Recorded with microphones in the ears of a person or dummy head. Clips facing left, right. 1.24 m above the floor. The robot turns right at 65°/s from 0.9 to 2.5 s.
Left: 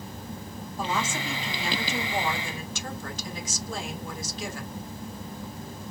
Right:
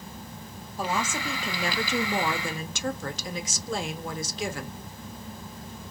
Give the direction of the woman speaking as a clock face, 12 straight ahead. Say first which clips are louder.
Right 1 dB; 6 o'clock.